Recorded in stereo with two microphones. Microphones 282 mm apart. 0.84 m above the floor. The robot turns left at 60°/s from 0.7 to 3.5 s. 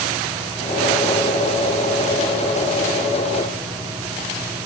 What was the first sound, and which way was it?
Only background noise.